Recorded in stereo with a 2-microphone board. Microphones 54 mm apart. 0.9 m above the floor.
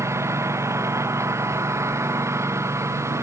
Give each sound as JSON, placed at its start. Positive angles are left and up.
{"t": 0.0, "sound": "a lawn mower", "side_deg": -60}